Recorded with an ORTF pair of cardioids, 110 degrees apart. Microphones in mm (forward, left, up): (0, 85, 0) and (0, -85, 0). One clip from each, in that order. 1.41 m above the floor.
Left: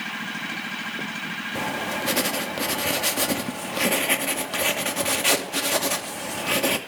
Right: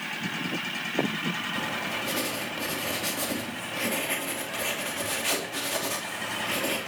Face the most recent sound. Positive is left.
turn(degrees=45)